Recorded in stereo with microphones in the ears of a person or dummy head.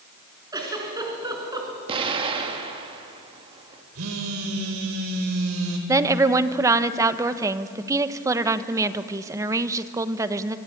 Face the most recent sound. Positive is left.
turn(degrees=-15)  # may be behind; listen again after turning